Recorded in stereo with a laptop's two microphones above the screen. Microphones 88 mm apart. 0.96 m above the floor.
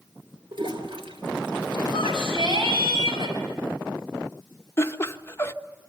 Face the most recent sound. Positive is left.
turn(degrees=30)  # may be behind; listen again after turning